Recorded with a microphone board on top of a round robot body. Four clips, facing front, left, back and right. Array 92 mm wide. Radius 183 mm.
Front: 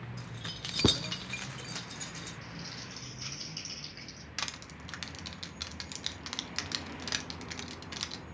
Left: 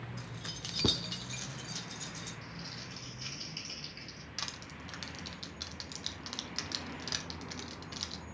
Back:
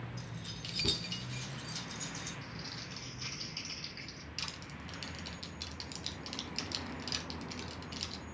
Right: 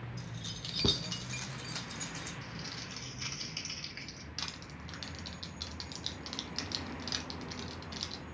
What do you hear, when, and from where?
0.2 s keys jangling: 45° left, 0.7 m; by 2.3 s 50° right, 1.2 m
2.4 s crumpling: 80° right, 2.5 m
4.4 s crushing: straight ahead, 1.5 m